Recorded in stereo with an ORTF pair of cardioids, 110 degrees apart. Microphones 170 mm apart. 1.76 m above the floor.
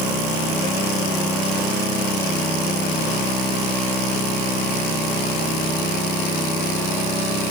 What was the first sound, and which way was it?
Only background noise.